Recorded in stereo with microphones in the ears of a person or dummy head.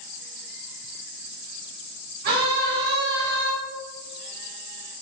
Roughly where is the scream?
Right.